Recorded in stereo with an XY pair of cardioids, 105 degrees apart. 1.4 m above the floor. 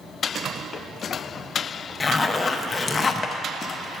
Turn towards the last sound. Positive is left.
turn(degrees=30)